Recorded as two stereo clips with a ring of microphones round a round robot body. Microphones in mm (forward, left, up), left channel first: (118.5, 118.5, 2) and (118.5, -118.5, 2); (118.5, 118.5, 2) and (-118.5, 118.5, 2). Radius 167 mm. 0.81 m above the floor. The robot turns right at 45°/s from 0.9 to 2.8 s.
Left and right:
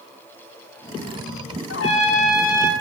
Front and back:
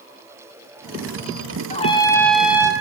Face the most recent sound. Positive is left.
turn(degrees=110)